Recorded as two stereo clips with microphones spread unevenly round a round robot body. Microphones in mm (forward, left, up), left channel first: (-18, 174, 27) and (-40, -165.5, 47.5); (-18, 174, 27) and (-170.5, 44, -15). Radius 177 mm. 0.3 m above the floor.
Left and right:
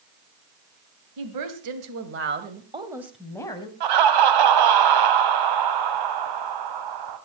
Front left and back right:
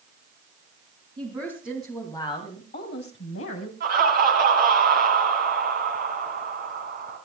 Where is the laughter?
90° right, 1.9 m.